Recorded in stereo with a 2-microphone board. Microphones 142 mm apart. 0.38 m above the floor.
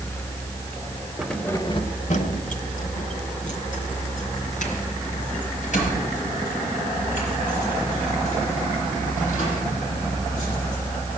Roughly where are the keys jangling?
Centre.